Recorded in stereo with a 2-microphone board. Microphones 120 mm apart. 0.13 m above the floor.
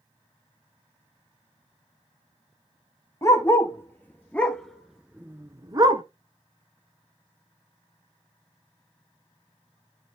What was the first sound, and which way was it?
A dog barking, 25° left (ahead or behind).